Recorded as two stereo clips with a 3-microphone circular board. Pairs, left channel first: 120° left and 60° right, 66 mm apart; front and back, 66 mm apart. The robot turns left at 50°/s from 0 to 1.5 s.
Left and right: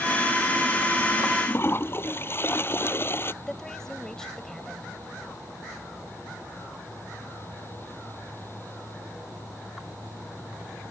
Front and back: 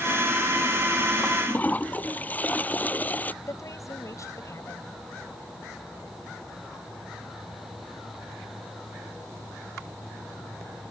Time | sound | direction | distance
1.2 | a toilet flushing | 80° left | ?
3.4 | a woman speaking | 40° left | ?